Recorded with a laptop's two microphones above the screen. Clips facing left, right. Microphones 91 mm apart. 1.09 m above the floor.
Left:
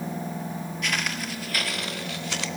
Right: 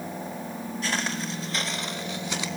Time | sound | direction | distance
0.8 | footsteps | 35° right (ahead or behind) | 1.4 m